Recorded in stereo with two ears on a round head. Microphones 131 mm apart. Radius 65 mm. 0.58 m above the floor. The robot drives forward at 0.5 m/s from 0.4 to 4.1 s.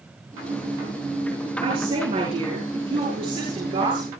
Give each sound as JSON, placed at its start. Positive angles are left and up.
{"t": 1.6, "sound": "a woman speaking", "side_deg": -40, "distance_m": 9.5}